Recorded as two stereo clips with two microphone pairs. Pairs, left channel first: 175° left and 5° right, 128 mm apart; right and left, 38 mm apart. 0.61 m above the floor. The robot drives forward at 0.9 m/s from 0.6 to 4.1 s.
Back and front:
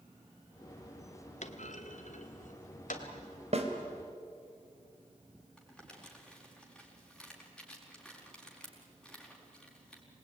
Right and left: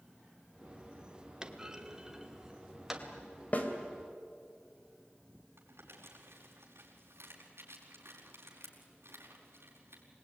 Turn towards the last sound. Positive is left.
turn(degrees=90)